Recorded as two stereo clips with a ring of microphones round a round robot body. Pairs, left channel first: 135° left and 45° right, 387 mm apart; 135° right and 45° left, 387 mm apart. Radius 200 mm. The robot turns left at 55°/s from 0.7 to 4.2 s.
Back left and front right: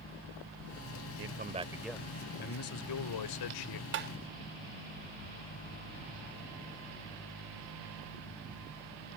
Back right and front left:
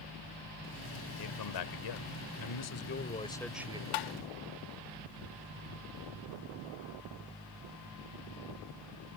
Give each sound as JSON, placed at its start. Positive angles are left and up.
{"t": 1.2, "sound": "a man speaking", "azimuth_deg": -95}
{"t": 3.9, "sound": "tapping", "azimuth_deg": -105}